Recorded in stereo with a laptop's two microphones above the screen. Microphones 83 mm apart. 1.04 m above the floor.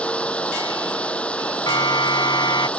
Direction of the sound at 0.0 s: 15° left (ahead or behind).